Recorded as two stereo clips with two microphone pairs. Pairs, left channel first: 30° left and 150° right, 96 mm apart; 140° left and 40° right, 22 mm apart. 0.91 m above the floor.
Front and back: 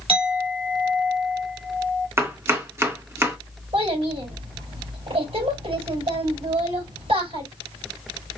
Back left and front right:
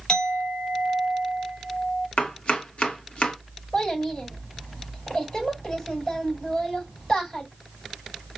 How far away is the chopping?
About 0.9 m.